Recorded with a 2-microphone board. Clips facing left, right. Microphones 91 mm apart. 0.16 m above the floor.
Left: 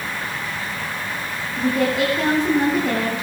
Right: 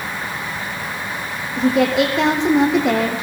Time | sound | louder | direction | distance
1.6 | a woman speaking | right 4 dB | 80° right | 7 m